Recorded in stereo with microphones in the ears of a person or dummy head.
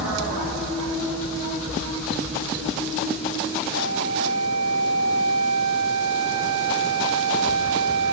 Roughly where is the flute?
Right.